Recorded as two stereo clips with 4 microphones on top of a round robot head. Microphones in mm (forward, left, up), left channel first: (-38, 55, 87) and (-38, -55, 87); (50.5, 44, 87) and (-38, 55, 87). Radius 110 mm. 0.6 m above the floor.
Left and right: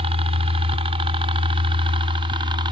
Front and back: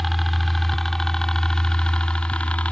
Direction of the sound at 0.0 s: 95° right.